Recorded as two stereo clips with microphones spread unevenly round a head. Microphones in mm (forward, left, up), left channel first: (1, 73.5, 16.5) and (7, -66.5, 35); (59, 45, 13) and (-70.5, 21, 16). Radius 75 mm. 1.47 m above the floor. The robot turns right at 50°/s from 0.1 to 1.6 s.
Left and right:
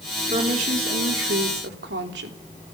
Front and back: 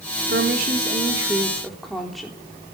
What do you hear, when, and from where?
0.3 s a woman speaking: 145° right, 3.5 m; by 2.4 s 80° right, 3.5 m